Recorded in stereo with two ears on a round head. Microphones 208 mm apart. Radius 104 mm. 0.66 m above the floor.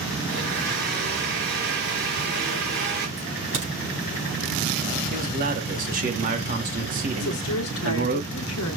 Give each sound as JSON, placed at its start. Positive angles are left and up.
{"t": 0.3, "sound": "a blender", "side_deg": -45, "distance_m": 3.0}
{"t": 3.2, "sound": "a crack", "side_deg": -55, "distance_m": 4.0}
{"t": 5.1, "sound": "a man speaking", "side_deg": -35, "distance_m": 1.3}
{"t": 7.2, "sound": "a woman speaking", "side_deg": 65, "distance_m": 1.3}